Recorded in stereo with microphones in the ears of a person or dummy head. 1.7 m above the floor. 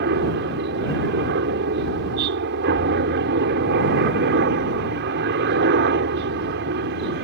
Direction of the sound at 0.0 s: 60° right (ahead or behind).